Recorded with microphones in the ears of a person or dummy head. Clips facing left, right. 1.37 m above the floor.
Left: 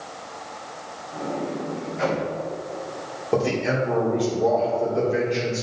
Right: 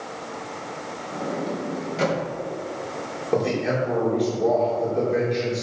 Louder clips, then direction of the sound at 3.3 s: Even; centre (ahead or behind).